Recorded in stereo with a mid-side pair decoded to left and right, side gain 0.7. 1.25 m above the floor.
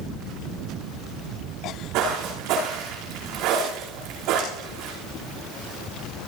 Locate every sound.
1.9 s footsteps: 55° right, 6 m